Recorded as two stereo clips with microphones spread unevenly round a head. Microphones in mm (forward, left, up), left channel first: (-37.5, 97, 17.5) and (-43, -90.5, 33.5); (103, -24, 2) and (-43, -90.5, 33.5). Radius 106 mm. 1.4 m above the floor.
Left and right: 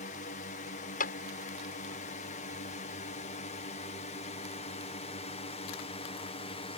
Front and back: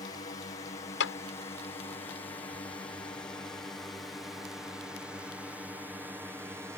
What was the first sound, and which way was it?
A drone, 70° left.